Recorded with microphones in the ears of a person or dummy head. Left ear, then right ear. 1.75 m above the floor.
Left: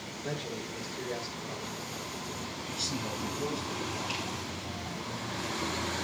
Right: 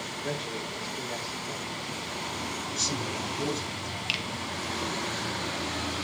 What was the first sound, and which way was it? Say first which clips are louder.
A man speaking: right 2 dB; 10° right (ahead or behind).